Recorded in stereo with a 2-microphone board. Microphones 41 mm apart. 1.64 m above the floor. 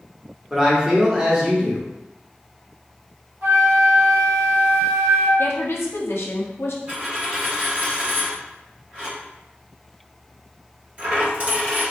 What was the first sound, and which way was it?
A man speaking, 15° right (ahead or behind).